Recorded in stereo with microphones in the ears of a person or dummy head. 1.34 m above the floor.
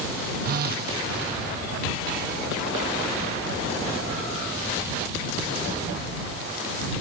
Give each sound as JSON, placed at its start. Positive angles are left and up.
{"t": 0.5, "sound": "a phone buzzing", "side_deg": -55}